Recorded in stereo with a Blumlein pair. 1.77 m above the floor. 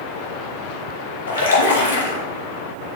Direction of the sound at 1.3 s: 60° left.